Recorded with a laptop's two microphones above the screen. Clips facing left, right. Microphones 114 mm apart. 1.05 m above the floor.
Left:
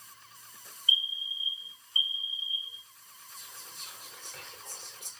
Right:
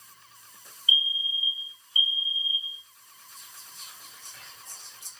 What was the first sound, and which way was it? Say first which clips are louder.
A fire alarm: right 5 dB; 45° left (ahead or behind).